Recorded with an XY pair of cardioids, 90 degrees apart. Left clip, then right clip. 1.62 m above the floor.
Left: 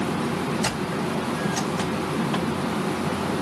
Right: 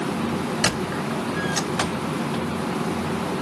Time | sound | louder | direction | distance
0.6 | a squeak | right 2 dB | 65° right | 2.5 m